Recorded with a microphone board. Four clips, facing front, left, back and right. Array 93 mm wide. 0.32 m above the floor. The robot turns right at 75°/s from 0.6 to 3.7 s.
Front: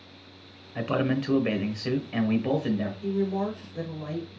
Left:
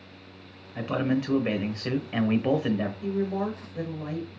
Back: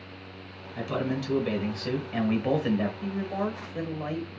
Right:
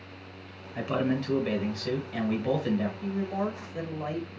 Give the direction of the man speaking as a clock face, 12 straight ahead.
1 o'clock.